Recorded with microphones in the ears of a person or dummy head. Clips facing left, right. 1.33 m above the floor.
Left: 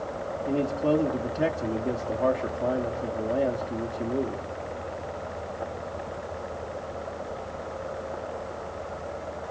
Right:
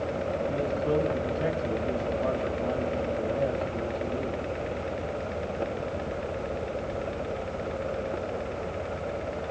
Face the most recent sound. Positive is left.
turn(degrees=70)  # may be behind; listen again after turning